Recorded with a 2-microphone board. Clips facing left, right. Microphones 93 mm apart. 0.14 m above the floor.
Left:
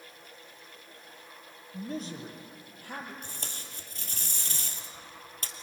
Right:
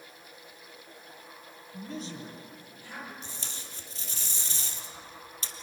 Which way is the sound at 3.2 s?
55° left (ahead or behind).